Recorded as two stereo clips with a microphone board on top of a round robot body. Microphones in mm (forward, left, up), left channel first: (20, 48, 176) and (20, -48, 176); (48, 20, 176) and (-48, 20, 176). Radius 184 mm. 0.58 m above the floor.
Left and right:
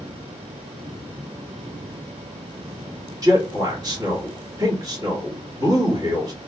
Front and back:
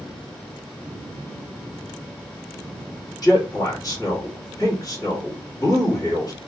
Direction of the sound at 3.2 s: 45° right.